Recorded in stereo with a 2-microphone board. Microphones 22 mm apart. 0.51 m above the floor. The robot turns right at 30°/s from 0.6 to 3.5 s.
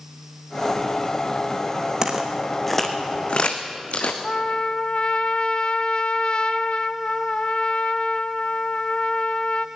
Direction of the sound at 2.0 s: 25° right (ahead or behind).